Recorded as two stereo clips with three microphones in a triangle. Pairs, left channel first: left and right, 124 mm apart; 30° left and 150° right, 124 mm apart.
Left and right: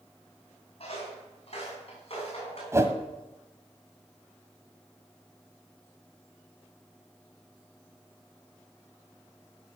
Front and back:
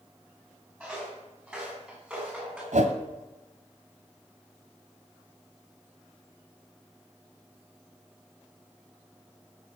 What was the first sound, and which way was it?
Footsteps, 130° left.